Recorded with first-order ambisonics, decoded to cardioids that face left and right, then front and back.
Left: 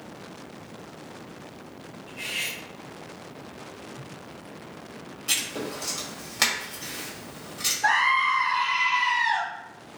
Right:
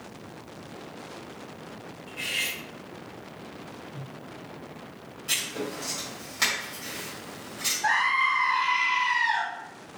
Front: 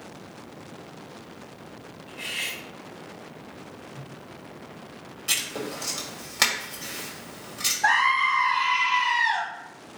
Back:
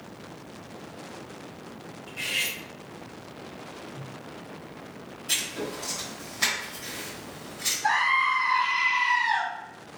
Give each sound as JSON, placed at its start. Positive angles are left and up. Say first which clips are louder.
{"t": 2.1, "sound": "cutlery clinking", "louder": "right 1 dB, back 2 dB", "azimuth_deg": -160, "distance_m": 0.7}
{"t": 3.9, "sound": "a whoosh", "louder": "left 1 dB, back 1 dB", "azimuth_deg": -110, "distance_m": 1.0}
{"t": 5.3, "sound": "writing", "louder": "left 1 dB, front 2 dB", "azimuth_deg": 25, "distance_m": 1.5}
{"t": 7.8, "sound": "a scream", "louder": "left 2 dB, front 2 dB", "azimuth_deg": 20, "distance_m": 1.6}